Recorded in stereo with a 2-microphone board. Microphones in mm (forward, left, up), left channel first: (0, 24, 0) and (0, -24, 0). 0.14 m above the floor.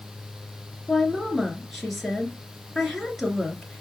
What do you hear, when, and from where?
0.9 s a woman speaking: 5° left (ahead or behind), 2.5 m